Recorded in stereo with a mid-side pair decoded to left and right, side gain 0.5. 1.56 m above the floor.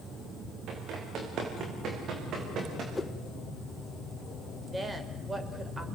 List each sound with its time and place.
0.7 s running footsteps: 70° right, 7 m; by 2.9 s 60° right, 7.5 m
3.0 s a whoosh: 15° left, 1.6 m
4.7 s a woman speaking: 25° right, 5.5 m